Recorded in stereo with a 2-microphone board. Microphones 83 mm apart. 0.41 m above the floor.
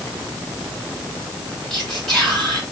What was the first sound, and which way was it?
Whispering, 5° left (ahead or behind).